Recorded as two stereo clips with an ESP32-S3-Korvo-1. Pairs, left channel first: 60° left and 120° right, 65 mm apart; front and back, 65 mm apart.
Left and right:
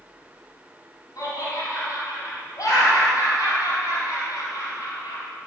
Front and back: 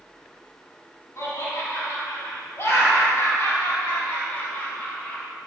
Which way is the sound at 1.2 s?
40° left.